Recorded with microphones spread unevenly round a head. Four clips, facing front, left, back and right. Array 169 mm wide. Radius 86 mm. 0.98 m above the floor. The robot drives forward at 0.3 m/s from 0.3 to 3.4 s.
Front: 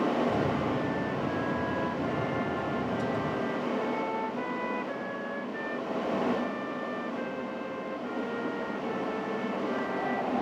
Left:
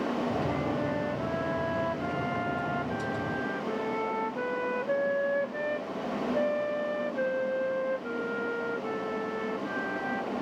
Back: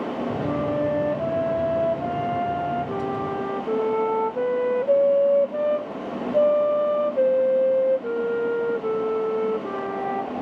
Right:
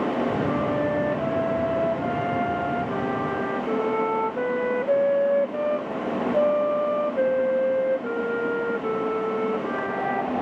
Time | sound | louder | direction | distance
0.4 | a flute | right 6 dB, back 6 dB | 155° right | ?